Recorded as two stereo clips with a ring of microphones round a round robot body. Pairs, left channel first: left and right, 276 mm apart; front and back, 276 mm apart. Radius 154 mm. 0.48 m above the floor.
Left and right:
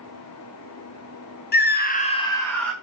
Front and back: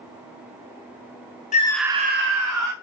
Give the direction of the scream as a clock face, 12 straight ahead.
10 o'clock.